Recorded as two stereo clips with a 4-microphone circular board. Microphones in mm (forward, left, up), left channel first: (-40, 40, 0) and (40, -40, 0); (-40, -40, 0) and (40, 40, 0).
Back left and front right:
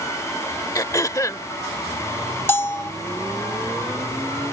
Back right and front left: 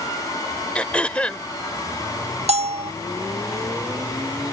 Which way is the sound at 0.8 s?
155° left.